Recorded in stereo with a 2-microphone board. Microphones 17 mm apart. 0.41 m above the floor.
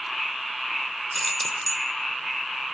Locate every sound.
1.1 s keys jangling: 5° right (ahead or behind), 0.6 m